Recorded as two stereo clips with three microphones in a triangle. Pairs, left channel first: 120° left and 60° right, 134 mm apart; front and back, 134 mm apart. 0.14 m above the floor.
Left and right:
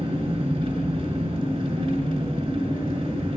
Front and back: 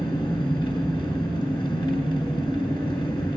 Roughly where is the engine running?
Ahead right.